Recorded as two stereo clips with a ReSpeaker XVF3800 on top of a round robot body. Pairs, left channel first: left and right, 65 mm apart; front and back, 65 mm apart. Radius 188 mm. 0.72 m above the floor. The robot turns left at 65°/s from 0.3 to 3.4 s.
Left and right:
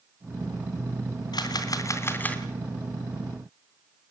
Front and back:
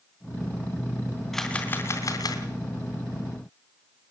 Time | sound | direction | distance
1.3 | a camera shutter | 85° left | 2.5 m